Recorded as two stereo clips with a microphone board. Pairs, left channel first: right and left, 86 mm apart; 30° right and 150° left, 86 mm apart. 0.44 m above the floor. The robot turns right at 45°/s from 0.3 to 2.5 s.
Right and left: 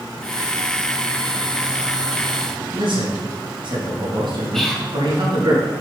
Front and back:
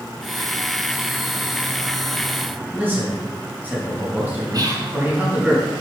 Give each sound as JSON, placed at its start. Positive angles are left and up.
{"t": 2.7, "sound": "a man speaking", "azimuth_deg": 80, "distance_m": 4.0}
{"t": 4.5, "sound": "whispering", "azimuth_deg": -175, "distance_m": 2.5}